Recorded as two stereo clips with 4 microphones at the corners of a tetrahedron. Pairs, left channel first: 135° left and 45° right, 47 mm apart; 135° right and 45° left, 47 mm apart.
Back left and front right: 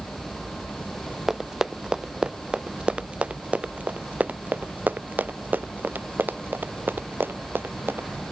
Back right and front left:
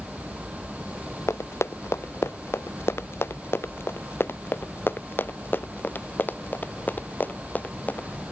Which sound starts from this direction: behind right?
Running footsteps, at 1.3 s.